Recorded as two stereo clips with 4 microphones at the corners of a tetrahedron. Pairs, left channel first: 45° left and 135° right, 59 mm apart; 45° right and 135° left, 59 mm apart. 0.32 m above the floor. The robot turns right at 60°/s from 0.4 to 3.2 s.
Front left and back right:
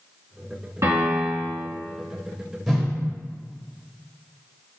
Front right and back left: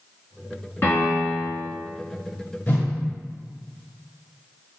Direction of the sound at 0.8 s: 100° right.